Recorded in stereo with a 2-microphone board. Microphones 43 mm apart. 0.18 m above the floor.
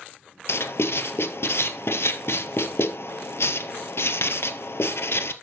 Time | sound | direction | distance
0.5 | writing | 80° left | 0.9 m